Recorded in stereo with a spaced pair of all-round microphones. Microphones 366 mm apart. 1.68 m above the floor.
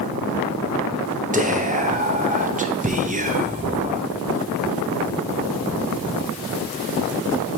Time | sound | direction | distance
1.3 | whispering | 20° right (ahead or behind) | 0.6 m